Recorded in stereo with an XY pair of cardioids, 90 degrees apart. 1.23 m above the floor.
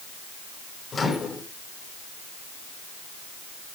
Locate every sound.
0.9 s a microwave: 40° left, 1.5 m